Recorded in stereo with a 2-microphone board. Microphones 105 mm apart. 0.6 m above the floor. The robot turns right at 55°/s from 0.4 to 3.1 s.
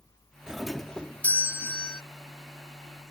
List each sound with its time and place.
0.5 s a doorbell: 10° right; by 2.0 s 75° left